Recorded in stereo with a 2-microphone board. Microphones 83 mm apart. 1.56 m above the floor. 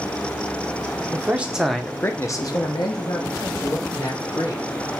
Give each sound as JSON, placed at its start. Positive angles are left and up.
{"t": 1.1, "sound": "a man speaking", "side_deg": -25, "distance_m": 1.0}